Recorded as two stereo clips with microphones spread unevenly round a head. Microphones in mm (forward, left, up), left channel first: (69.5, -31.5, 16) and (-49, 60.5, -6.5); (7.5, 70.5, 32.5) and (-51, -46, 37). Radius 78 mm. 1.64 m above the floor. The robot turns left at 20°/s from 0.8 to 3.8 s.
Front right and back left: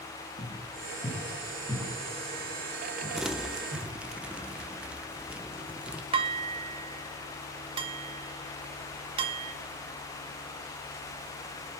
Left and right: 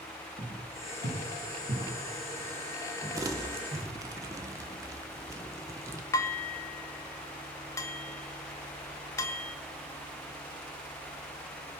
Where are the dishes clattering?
110° left, 0.7 m.